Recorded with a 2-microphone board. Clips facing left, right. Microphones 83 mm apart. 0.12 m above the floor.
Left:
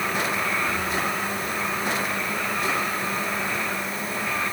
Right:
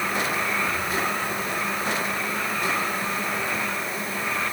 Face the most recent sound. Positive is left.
No sound to turn to.